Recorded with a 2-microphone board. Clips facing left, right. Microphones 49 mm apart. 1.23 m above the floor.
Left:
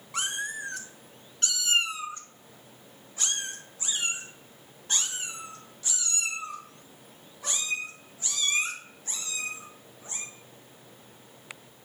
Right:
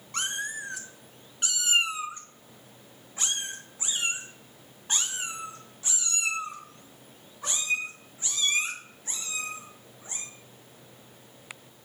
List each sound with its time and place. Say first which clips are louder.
0.1 s a cat meowing: even; 5° left (ahead or behind), 0.9 m; by 10.2 s 25° right (ahead or behind), 5.5 m